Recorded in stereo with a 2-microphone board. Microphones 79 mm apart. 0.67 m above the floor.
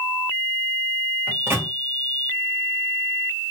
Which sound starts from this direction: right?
A microwave, at 1.3 s.